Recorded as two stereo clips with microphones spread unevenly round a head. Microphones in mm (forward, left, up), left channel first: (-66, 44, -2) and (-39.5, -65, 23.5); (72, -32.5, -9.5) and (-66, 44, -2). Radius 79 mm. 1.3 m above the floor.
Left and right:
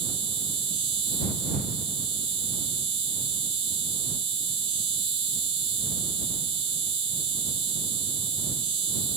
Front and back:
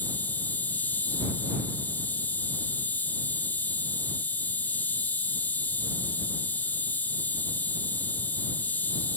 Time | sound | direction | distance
0.0 | an insect | 110° right | ?